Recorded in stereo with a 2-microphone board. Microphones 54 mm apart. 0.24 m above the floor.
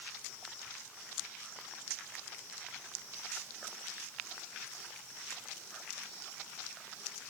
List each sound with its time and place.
Only background noise.